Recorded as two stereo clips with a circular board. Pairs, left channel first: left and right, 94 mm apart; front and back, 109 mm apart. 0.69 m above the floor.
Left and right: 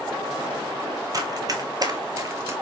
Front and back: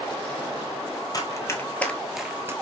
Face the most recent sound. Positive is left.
turn(degrees=-130)